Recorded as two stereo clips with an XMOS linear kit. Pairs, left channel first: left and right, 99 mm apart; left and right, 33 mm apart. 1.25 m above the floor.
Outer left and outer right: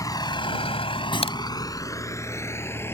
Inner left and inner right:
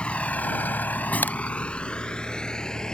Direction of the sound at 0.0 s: 40° left (ahead or behind).